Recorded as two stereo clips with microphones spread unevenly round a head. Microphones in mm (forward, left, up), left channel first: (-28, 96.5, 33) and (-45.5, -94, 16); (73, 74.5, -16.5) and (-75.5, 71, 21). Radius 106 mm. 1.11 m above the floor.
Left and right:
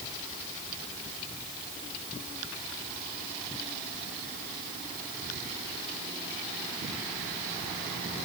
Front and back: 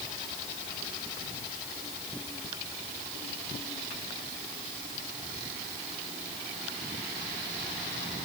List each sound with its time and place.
Only background noise.